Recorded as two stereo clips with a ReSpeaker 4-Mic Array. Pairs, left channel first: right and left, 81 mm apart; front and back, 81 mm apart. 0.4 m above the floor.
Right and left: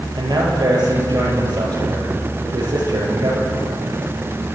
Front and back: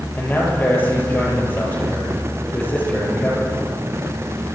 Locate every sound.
0.2 s a man speaking: 65° left, 8 m